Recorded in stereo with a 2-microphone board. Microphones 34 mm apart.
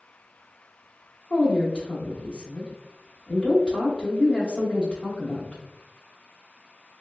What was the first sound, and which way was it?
A woman speaking, 30° left (ahead or behind).